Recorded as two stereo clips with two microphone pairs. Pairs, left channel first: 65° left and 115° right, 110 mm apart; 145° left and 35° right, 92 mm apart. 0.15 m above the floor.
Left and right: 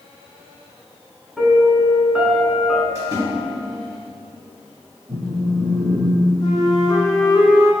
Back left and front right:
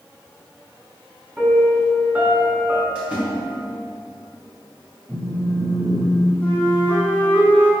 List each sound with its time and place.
1.4 s a piano: 35° right, 0.7 m
3.0 s a splash: 100° right, 1.8 m
5.1 s a phone buzzing: 90° right, 0.9 m
6.4 s a flute: 85° left, 0.9 m